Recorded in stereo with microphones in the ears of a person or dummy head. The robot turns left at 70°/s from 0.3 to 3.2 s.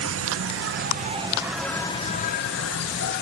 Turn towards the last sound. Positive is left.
turn(degrees=70)